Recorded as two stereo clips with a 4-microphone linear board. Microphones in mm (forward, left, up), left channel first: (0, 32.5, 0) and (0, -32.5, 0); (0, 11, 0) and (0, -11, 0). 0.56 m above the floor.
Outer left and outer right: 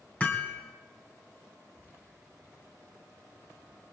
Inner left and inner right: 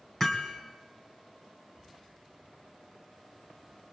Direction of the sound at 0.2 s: 20° left (ahead or behind).